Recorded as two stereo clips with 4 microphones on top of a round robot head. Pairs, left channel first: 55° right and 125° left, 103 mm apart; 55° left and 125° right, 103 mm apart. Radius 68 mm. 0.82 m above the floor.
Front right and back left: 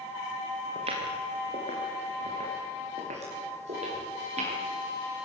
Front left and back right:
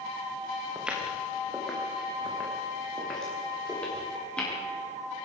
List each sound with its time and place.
0.8 s footsteps: 155° left, 4.5 m; by 4.5 s 135° left, 10 m